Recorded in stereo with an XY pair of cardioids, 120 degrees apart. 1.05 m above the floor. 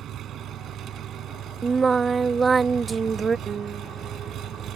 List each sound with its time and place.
0.0 s an engine running: 65° right
1.6 s singing: 30° right
3.5 s a piano: 40° right